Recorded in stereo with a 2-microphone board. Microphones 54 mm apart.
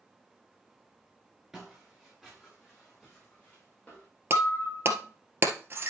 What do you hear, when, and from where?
1.5 s footsteps: 5° right (ahead or behind), 5.5 m; by 4.1 s 30° left (ahead or behind), 6.5 m
4.3 s breaking glass: 40° right (ahead or behind), 1.7 m